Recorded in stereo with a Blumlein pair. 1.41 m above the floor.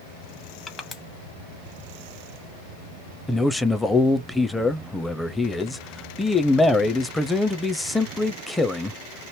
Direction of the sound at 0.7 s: 20° left.